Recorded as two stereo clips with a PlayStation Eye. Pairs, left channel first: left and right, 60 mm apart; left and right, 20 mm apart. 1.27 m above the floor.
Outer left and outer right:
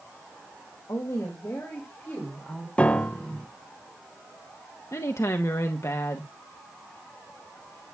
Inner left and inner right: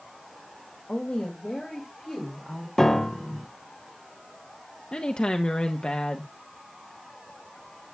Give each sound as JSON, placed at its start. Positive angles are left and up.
{"t": 0.9, "sound": "a woman speaking", "side_deg": 60, "distance_m": 1.9}
{"t": 2.8, "sound": "a piano", "side_deg": 20, "distance_m": 0.5}
{"t": 4.9, "sound": "a woman speaking", "side_deg": 55, "distance_m": 0.8}